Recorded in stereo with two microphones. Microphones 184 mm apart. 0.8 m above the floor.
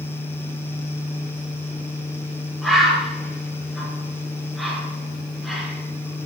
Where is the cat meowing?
No cat meowing in this recording.